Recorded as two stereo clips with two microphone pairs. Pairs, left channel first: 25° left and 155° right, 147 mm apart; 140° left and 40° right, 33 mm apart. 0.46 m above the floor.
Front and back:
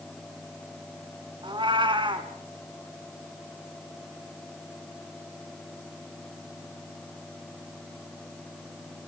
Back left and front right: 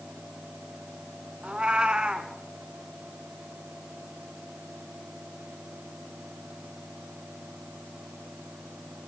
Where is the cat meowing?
100° right, 1.8 m.